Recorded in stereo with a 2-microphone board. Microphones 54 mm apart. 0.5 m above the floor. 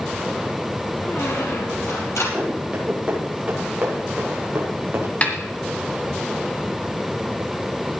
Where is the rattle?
I don't hear a rattle.